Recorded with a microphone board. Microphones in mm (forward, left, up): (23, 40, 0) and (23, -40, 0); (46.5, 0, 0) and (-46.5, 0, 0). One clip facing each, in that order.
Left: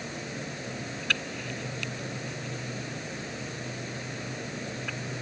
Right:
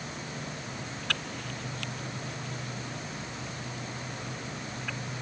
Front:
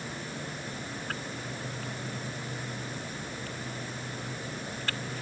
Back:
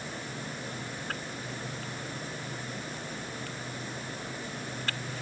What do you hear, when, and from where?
Only background noise.